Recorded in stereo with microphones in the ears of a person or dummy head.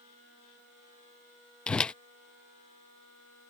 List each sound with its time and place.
1.7 s a whoosh: 5° left (ahead or behind)